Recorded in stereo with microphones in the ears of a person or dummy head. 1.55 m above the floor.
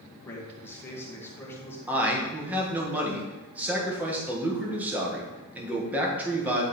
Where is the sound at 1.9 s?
5° right (ahead or behind), 1.6 m.